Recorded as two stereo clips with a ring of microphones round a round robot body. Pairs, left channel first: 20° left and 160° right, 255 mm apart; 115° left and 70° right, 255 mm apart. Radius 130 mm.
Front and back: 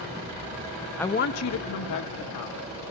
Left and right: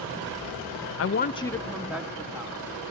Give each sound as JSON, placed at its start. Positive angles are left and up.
{"t": 1.0, "sound": "a woman speaking", "azimuth_deg": 110, "distance_m": 0.6}